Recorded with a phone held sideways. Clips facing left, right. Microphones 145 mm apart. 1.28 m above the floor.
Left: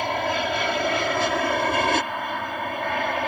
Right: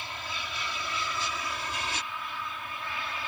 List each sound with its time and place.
0.0 s an aircraft: 70° left (ahead or behind); by 3.3 s 65° left (ahead or behind)